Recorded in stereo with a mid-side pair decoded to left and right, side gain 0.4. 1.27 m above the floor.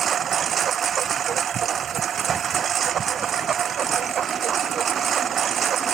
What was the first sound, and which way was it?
A lawn mower, 55° right.